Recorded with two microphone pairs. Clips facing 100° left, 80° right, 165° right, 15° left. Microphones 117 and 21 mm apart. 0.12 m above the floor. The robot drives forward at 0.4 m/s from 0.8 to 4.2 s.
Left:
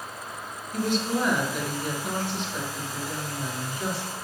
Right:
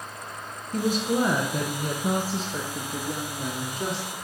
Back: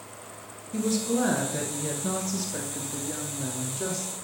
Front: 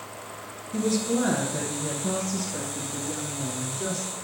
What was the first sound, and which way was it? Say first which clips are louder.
A woman speaking: right 2 dB, front 1 dB; 70° right.